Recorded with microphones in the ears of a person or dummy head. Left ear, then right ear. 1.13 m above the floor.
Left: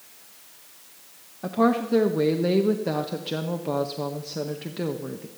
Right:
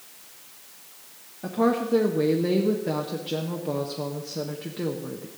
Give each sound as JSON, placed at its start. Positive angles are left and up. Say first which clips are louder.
{"t": 1.4, "sound": "a woman speaking", "louder": "left 1 dB", "side_deg": 30, "distance_m": 0.7}